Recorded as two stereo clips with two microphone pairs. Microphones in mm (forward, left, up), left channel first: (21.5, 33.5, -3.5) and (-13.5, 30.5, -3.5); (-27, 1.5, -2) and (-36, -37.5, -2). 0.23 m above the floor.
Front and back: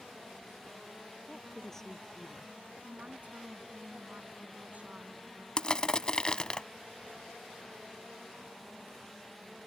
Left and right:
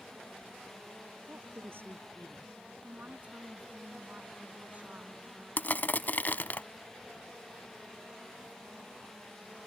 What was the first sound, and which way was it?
A woman speaking, 75° right.